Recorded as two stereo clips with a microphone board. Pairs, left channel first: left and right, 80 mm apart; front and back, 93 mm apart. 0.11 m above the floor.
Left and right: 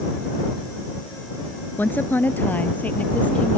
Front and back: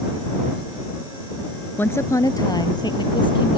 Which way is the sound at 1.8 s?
50° left.